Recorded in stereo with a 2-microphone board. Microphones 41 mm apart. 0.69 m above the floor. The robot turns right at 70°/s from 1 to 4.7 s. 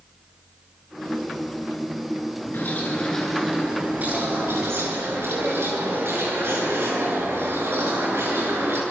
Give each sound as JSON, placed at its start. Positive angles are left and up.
{"t": 2.5, "sound": "a bird", "azimuth_deg": 125, "distance_m": 7.5}